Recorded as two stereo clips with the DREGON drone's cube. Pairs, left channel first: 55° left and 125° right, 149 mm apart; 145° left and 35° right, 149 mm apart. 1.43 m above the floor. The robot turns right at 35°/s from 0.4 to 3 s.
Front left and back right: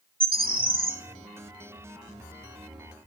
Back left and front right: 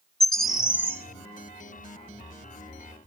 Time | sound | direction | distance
0.2 | a bird | 125° right | 1.0 m